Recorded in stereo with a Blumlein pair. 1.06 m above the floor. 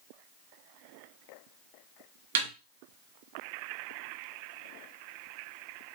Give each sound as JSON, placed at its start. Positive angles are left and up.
{"t": 2.4, "sound": "a snare drum", "azimuth_deg": -60, "distance_m": 1.3}